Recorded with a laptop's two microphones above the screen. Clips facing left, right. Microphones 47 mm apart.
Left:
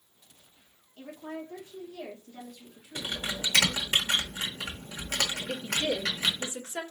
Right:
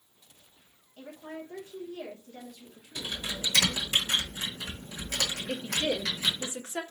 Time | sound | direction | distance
1.0 | a woman speaking | 35° right (ahead or behind) | 2.0 m
3.0 | typing on a keyboard | 40° left (ahead or behind) | 1.1 m
5.5 | a woman speaking | 25° right (ahead or behind) | 0.8 m